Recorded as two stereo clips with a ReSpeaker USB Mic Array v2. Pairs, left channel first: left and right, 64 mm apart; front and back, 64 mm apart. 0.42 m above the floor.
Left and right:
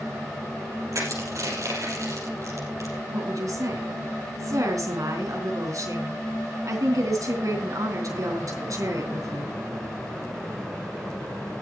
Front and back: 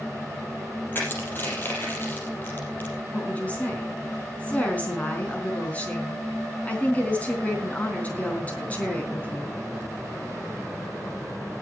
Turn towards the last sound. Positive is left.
turn(degrees=-65)